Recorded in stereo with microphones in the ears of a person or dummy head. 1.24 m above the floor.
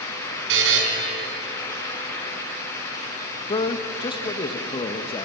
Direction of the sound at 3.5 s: 25° left (ahead or behind).